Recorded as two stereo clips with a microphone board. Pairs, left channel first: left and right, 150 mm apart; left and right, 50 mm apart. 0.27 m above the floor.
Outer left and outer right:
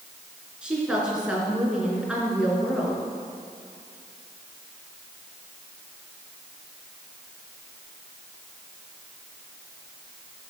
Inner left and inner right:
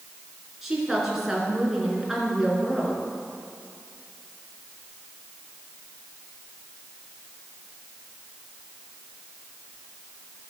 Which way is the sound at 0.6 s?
5° right (ahead or behind).